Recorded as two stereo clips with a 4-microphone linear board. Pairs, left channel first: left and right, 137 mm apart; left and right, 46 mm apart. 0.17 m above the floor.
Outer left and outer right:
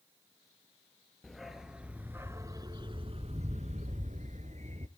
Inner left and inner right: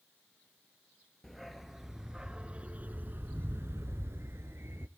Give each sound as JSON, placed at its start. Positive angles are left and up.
{"t": 1.2, "sound": "a dog barking", "side_deg": 0, "distance_m": 1.2}